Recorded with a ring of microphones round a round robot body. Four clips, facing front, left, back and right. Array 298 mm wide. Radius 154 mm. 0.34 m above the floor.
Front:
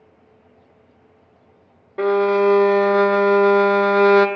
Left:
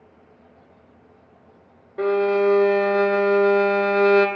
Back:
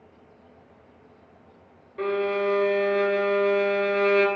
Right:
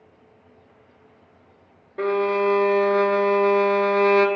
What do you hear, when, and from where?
2.0 s a violin: straight ahead, 0.5 m